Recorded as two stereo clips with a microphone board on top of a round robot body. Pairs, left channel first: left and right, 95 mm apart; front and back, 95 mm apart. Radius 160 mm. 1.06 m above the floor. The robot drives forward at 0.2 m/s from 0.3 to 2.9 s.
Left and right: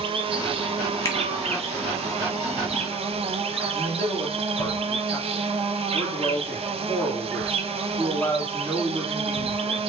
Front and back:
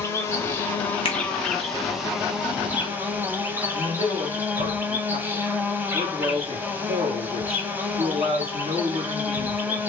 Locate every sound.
0.0 s an insect: 65° right, 0.8 m; by 9.9 s 105° right, 0.7 m
1.1 s a finger snap: 30° left, 1.4 m
3.7 s a man speaking: 160° left, 1.9 m